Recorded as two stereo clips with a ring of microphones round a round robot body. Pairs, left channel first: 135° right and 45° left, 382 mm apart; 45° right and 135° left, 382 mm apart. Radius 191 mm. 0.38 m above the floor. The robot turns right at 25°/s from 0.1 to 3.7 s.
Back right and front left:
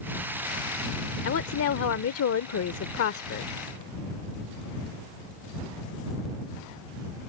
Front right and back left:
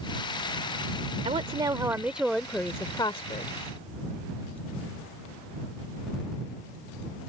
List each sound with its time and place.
1.2 s a woman speaking: 160° right; by 3.5 s 105° right